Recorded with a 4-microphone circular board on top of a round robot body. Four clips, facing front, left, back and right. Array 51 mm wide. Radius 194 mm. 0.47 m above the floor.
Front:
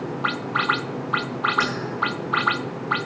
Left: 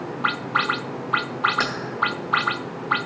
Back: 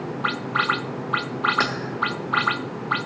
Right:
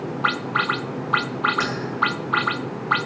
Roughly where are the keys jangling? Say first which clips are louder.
Even, back 1 dB; behind.